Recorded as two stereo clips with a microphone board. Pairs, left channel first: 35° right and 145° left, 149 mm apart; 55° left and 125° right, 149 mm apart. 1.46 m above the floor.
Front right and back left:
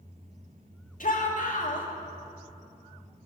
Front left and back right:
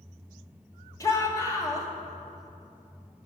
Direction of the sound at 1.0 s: 10° right.